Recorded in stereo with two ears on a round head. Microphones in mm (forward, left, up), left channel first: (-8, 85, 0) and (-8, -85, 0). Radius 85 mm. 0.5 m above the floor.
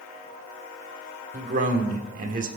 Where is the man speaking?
45° right (ahead or behind), 1.4 m.